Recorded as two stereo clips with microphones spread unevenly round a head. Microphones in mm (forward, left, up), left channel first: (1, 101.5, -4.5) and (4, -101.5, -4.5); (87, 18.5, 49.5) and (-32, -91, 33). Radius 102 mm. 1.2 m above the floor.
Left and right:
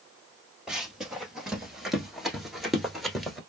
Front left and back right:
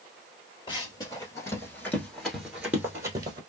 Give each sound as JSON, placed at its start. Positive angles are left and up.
{"t": 0.7, "sound": "running footsteps", "azimuth_deg": -5, "distance_m": 1.6}